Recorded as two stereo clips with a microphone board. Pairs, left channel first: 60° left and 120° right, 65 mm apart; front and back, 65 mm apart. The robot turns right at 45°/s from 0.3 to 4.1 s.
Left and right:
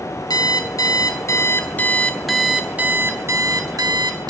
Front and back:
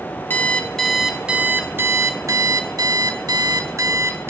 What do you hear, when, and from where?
0.3 s an alarm clock: 60° left, 2 m; by 4.3 s 130° right, 2 m